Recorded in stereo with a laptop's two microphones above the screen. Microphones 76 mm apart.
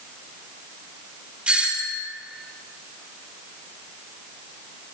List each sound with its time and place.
1.5 s a doorbell: 15° right (ahead or behind), 2 m